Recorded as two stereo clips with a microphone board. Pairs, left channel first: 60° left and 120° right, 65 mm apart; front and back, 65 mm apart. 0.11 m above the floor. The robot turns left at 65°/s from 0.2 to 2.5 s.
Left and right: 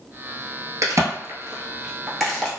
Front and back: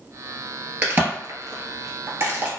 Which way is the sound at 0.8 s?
120° right.